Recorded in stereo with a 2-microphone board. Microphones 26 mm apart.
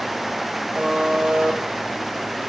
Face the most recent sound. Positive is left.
turn(degrees=-35)  # may be behind; listen again after turning